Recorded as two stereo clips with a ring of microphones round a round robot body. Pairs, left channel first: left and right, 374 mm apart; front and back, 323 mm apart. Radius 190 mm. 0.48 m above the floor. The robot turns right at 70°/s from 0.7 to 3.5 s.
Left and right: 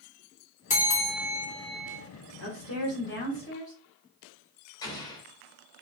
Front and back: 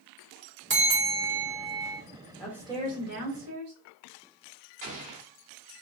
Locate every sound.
0.7 s a bell: 150° left, 1.3 m; by 2.0 s 120° right, 1.3 m
2.4 s a woman speaking: 85° left, 1.7 m; by 3.7 s 165° left, 1.7 m
4.8 s an explosion: 170° left, 1.3 m